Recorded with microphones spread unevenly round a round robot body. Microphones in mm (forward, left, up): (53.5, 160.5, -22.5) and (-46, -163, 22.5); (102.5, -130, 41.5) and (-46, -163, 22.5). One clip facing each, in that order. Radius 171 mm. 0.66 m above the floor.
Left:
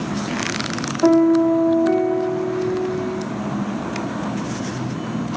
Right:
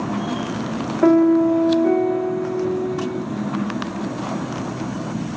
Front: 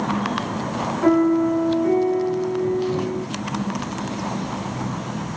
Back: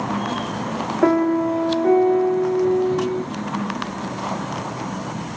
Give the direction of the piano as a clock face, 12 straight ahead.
5 o'clock.